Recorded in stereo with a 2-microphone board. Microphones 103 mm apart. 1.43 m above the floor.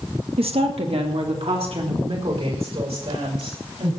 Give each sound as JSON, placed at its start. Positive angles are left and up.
{"t": 0.4, "sound": "a woman speaking", "side_deg": -65, "distance_m": 1.8}